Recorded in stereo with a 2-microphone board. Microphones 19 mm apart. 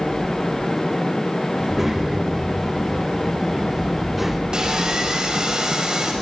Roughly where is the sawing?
Right.